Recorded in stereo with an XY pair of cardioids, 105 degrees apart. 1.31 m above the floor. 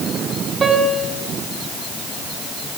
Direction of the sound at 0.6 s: 30° right.